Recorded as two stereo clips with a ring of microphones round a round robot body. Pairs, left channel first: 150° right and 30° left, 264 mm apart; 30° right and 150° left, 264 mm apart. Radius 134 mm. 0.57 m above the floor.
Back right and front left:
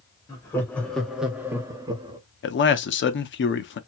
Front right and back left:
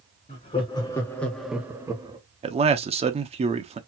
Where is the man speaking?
155° right, 0.7 m.